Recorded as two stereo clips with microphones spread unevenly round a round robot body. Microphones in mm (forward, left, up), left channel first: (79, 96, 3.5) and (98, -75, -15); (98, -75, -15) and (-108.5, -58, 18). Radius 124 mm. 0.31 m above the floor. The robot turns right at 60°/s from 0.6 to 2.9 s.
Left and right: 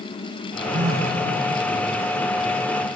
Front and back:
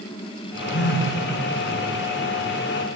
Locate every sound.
0.7 s a phone buzzing: 45° right, 4.5 m; by 1.2 s 20° right, 4.5 m